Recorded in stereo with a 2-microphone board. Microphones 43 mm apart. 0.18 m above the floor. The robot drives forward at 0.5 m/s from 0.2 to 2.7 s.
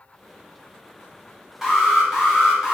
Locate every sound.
1.6 s an alarm: 10° right (ahead or behind), 1.7 m